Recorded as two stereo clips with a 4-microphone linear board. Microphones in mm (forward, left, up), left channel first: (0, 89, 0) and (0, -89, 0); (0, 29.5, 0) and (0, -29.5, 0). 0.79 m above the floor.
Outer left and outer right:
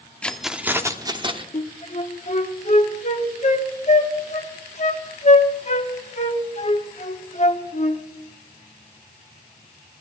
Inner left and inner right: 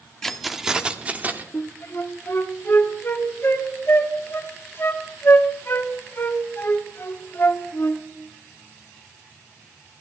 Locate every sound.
0.2 s keys jangling: 5° left (ahead or behind), 1.1 m; by 1.4 s 35° right (ahead or behind), 1.4 m
1.5 s a flute: 45° left (ahead or behind), 1.6 m